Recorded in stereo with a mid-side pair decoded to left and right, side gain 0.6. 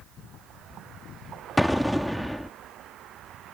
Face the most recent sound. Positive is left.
turn(degrees=0)